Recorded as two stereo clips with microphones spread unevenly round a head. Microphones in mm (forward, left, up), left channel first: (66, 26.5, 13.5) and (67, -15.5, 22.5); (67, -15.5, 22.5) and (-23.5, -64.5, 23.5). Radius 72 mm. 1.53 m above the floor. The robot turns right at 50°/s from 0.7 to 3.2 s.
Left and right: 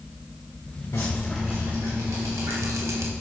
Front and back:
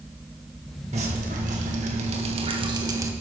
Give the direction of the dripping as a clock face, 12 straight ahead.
7 o'clock.